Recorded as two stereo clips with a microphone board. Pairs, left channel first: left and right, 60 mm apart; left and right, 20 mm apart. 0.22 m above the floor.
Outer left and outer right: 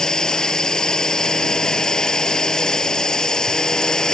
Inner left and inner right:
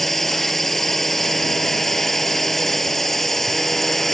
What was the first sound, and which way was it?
A drone, 10° left (ahead or behind).